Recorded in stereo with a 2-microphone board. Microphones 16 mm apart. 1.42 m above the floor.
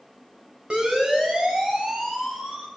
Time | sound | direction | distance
0.7 | a siren | 75° right (ahead or behind) | 6.5 m